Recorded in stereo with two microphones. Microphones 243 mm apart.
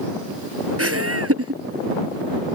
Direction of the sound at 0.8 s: 70° right (ahead or behind).